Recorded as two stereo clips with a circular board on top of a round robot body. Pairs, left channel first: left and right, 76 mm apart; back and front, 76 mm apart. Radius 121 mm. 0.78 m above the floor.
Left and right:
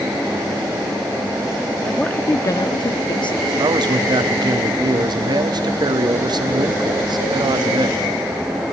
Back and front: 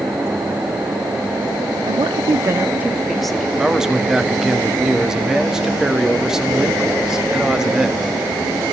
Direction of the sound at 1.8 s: 5° left.